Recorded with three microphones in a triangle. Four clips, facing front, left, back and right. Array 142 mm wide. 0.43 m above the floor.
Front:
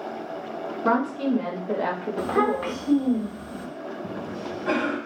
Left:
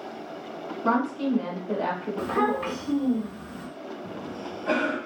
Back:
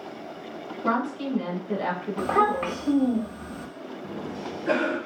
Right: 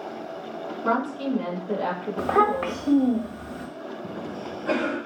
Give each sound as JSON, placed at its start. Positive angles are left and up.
{"t": 0.8, "sound": "a woman speaking", "azimuth_deg": -10, "distance_m": 1.5}
{"t": 2.2, "sound": "a child speaking", "azimuth_deg": -105, "distance_m": 1.3}
{"t": 4.0, "sound": "a cough", "azimuth_deg": -20, "distance_m": 2.5}